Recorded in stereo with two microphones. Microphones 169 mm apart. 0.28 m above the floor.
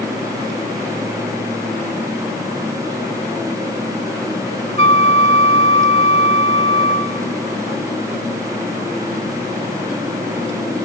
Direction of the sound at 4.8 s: 35° left (ahead or behind).